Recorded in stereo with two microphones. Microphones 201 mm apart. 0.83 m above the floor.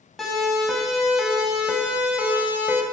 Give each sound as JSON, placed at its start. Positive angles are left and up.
{"t": 0.2, "sound": "a siren", "side_deg": 0, "distance_m": 8.0}